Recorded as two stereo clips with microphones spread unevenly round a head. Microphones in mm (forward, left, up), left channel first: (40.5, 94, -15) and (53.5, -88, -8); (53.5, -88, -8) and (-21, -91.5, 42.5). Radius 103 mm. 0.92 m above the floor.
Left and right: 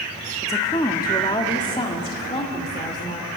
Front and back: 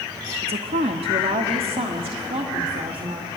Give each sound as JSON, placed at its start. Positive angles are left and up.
{"t": 0.4, "sound": "a woman speaking", "azimuth_deg": 170, "distance_m": 0.8}